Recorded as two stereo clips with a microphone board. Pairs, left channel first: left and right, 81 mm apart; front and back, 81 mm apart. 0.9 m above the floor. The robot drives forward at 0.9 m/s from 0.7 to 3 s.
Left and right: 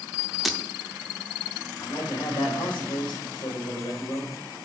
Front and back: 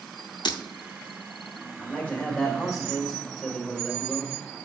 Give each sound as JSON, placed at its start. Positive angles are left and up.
{"t": 0.5, "sound": "breaking glass", "azimuth_deg": 0, "distance_m": 0.7}
{"t": 1.8, "sound": "a man speaking", "azimuth_deg": 70, "distance_m": 3.0}